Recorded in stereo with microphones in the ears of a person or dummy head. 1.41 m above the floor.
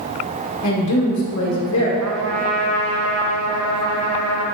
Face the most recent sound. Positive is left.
turn(degrees=-80)